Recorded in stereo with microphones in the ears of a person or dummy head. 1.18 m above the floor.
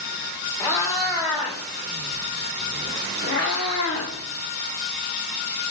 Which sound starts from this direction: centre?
A cat meowing, at 0.6 s.